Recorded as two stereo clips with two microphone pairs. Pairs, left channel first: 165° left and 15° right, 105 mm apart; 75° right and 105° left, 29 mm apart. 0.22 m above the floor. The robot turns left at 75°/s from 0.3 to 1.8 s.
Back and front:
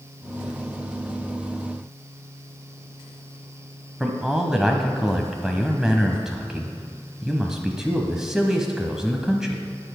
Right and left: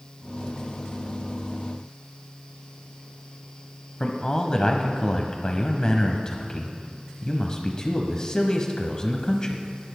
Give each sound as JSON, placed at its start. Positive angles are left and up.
{"t": 4.0, "sound": "a man speaking", "azimuth_deg": -90, "distance_m": 1.0}